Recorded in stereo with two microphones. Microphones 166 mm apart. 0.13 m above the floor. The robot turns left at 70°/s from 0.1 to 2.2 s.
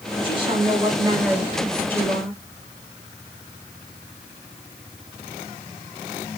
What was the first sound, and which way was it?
A woman speaking, 85° right.